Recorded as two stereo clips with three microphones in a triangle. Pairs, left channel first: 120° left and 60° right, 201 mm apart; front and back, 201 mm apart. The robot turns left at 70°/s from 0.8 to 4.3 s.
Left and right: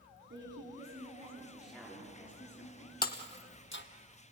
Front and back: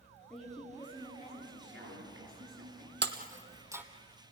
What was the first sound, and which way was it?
A woman speaking, 90° right.